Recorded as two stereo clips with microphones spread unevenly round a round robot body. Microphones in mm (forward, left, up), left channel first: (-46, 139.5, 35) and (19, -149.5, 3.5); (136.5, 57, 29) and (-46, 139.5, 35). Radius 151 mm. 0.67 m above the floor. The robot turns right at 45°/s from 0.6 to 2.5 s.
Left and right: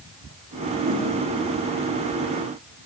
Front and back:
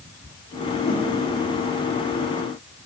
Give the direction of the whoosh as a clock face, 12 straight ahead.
1 o'clock.